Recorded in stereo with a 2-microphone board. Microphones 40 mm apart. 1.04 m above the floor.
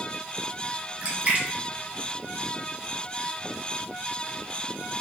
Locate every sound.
1.0 s a splash: 35° right (ahead or behind), 1.0 m